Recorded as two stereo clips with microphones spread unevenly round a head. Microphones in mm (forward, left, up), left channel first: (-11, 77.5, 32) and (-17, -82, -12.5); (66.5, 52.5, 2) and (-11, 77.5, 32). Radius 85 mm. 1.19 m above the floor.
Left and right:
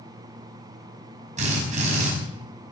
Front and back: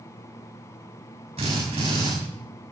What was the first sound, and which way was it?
A drill, 145° right.